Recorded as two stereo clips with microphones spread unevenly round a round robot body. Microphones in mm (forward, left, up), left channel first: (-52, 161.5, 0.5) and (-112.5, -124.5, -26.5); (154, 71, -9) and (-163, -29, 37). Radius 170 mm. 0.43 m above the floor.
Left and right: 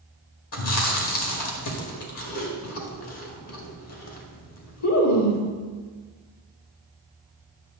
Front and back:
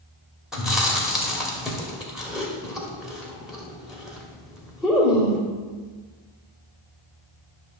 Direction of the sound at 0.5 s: 105° left.